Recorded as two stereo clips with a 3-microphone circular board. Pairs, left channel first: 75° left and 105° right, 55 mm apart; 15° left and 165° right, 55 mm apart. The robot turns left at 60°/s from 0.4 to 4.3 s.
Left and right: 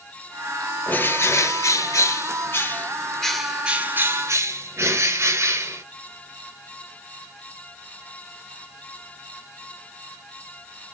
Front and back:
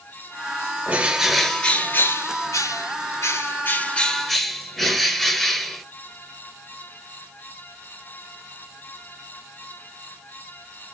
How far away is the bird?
About 0.7 m.